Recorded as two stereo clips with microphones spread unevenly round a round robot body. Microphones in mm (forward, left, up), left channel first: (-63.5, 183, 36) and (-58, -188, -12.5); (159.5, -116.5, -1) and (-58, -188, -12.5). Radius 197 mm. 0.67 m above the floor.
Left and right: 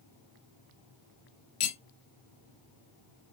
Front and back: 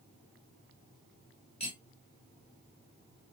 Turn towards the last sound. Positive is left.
turn(degrees=95)